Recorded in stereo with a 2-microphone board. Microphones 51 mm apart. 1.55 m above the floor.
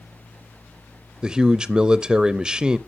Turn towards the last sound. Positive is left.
turn(degrees=-15)  # may be behind; listen again after turning